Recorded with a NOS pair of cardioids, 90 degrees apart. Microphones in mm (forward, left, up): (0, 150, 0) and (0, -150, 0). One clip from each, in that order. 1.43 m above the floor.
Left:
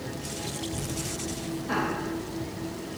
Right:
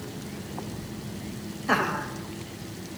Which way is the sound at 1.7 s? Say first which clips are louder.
Right 4 dB; 60° right.